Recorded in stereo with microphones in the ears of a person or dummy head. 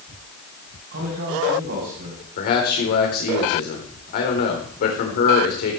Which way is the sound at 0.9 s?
55° right (ahead or behind).